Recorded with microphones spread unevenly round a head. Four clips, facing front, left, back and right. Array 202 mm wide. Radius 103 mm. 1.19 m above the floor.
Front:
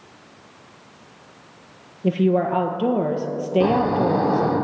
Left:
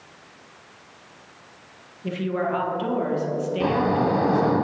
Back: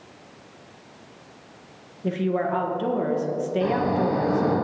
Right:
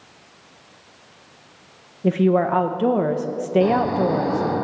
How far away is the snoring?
About 4 m.